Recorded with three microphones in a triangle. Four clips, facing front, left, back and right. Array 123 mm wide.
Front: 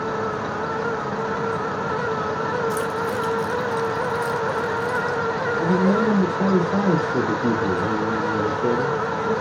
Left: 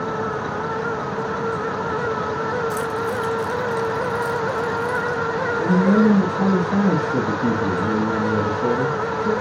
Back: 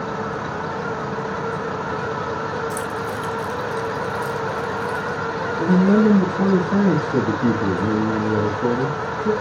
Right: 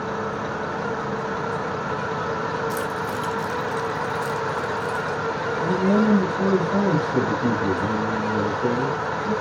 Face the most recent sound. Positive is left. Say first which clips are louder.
# left 4 dB, back 4 dB
turn(degrees=165)